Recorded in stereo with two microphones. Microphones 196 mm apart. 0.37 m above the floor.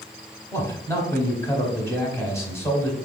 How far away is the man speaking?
About 1.1 m.